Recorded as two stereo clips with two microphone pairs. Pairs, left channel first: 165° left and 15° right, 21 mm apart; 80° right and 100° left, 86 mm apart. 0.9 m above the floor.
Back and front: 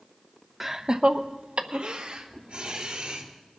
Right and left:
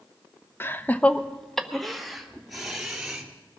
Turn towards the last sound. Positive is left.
turn(degrees=15)